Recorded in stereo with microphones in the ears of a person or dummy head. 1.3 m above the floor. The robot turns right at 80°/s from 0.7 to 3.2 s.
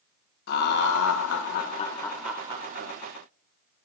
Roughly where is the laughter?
Ahead left.